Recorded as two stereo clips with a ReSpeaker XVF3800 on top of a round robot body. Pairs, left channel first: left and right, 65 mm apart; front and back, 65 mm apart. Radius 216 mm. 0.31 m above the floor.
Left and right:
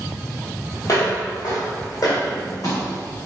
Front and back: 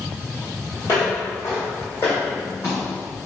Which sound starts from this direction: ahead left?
Footsteps, at 0.8 s.